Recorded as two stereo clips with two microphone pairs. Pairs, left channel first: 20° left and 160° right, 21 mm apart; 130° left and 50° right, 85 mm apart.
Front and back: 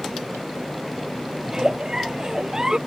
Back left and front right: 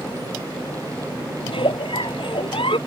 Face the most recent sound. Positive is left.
turn(degrees=145)